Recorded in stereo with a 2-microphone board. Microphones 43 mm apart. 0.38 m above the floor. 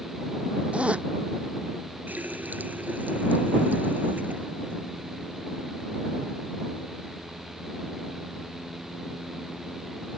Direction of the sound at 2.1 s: 40° right (ahead or behind).